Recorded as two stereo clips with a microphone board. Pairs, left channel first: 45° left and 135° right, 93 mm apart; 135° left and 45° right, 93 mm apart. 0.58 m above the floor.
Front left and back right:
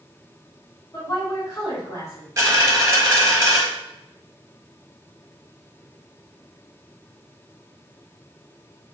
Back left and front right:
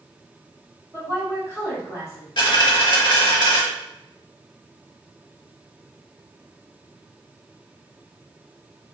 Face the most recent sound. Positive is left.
turn(degrees=165)